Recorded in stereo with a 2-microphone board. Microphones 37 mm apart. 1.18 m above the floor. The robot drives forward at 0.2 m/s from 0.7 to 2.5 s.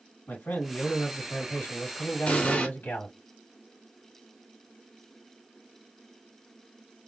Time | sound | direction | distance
0.3 | a man speaking | 65° left (ahead or behind) | 2 m
2.3 | an explosion | 40° left (ahead or behind) | 1.1 m